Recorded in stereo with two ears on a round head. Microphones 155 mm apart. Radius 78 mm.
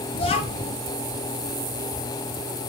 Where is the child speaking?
35° left (ahead or behind), 1.7 m.